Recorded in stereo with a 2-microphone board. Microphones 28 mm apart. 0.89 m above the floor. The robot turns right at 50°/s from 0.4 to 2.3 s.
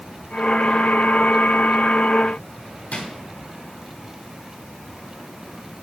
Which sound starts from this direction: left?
A drawer, at 2.9 s.